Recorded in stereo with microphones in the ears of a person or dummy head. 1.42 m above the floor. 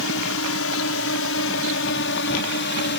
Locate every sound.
0.0 s a drone: 65° left (ahead or behind); by 3.0 s 50° left (ahead or behind)